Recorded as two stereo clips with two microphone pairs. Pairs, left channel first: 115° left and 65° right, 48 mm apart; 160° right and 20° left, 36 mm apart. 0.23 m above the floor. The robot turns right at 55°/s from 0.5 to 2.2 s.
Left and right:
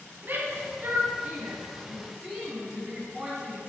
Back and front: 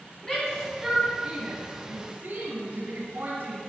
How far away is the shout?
About 2 m.